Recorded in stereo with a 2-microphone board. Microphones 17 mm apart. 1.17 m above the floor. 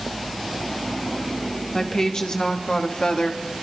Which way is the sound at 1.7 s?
35° left (ahead or behind).